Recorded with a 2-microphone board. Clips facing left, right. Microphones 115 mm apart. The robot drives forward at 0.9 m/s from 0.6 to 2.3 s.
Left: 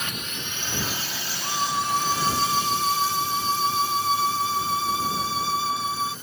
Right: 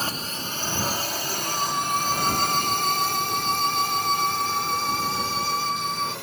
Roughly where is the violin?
Centre.